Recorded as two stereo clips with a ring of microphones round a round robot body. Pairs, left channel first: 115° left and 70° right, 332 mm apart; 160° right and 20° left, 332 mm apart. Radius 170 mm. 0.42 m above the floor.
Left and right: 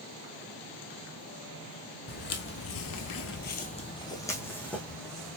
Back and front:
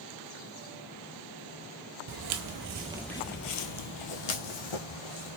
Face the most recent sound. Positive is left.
turn(degrees=-160)